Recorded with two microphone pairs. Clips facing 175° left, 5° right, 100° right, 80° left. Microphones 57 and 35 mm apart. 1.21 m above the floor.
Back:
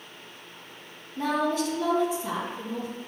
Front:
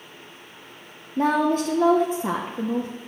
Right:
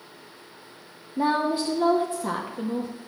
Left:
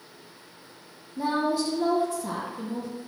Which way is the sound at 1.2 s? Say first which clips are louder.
Front 5 dB, right 2 dB; 50° right.